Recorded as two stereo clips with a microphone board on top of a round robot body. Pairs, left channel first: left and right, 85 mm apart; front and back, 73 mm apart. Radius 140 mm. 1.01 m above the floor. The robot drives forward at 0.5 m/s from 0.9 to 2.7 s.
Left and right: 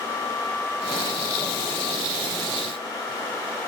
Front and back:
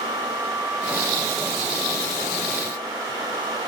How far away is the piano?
I don't hear a piano.